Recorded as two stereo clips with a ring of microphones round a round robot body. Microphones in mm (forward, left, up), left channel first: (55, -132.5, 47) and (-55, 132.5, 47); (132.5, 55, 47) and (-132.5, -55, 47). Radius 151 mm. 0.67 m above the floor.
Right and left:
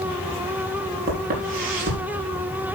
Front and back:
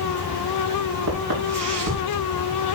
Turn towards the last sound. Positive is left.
turn(degrees=170)